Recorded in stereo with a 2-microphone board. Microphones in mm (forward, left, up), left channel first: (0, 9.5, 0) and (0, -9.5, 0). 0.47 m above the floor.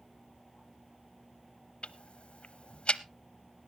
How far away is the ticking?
About 0.6 m.